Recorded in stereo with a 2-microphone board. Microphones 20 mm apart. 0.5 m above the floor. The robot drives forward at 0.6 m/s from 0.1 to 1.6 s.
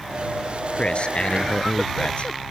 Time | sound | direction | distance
0.8 | a man speaking | 60° left (ahead or behind) | ?